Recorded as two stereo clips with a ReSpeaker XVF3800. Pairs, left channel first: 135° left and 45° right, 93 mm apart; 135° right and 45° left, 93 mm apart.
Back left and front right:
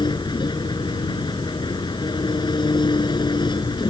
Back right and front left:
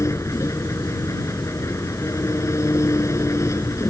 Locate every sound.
0.0 s an engine running: 170° left